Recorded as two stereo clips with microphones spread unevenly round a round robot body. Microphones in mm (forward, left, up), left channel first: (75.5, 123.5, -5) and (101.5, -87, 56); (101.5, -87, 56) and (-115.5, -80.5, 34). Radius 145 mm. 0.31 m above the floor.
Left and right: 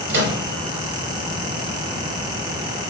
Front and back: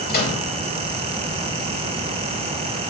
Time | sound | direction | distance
0.1 | a microwave | 45° right | 4.5 m